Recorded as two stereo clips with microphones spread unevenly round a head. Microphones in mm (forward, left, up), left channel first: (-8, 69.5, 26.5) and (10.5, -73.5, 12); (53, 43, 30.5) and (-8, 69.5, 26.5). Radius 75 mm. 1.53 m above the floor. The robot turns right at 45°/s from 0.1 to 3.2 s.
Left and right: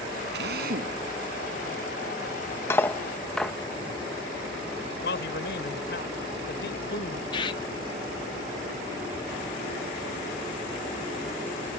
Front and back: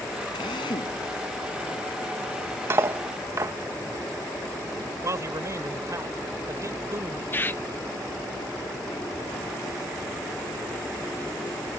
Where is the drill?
70° right; by 1.0 s 40° right.